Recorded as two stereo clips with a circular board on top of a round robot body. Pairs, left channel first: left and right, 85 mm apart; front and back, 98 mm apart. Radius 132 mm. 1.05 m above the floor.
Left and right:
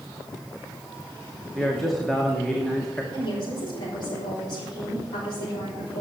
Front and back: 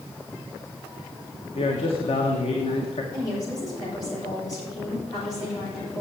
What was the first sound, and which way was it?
A man speaking, 5° left.